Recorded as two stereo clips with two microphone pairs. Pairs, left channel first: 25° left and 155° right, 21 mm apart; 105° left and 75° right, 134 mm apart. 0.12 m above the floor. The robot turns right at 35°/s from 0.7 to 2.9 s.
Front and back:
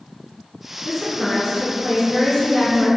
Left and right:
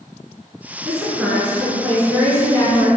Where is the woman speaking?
Straight ahead, 1.1 m; by 2.9 s 70° left, 1.1 m.